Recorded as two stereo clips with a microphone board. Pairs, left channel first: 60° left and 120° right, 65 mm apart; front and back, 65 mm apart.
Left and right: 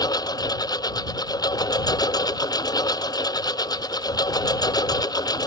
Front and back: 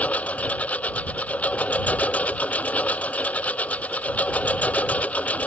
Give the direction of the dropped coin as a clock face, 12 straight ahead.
No dropped coin in this recording.